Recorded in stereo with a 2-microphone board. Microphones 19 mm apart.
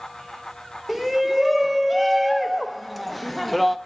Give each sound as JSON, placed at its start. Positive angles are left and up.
{"t": 0.9, "sound": "a shout", "side_deg": 5, "distance_m": 1.9}